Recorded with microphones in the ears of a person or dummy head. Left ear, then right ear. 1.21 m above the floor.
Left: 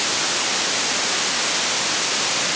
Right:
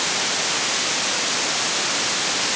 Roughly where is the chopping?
I don't hear chopping.